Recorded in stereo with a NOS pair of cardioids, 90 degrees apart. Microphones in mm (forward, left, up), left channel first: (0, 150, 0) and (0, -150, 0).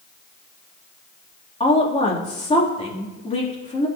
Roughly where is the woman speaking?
Ahead.